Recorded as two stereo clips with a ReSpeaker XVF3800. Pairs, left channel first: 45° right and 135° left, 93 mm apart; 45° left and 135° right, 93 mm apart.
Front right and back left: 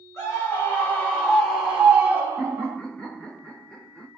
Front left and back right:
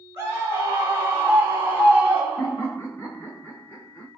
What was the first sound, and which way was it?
A scream, 85° right.